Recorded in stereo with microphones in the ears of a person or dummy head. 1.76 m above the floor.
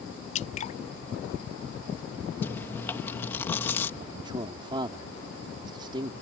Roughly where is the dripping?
Left.